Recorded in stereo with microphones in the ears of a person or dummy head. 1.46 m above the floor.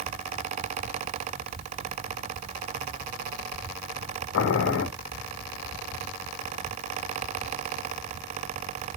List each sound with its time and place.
4.3 s boiling: 70° left (ahead or behind), 1.0 m